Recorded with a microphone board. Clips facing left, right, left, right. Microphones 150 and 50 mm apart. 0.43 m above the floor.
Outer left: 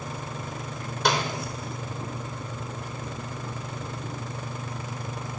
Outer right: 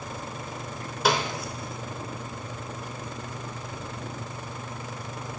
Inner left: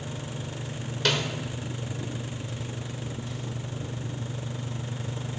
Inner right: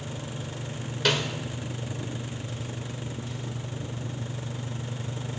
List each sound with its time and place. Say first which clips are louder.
1.1 s a snare drum: outer right 1 dB, inner right 1 dB; centre (ahead or behind), 1.1 m